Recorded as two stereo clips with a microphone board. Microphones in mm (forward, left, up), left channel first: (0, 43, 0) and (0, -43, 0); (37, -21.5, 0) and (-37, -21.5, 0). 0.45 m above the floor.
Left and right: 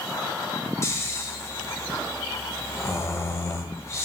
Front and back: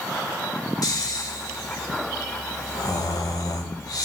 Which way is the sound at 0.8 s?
35° left.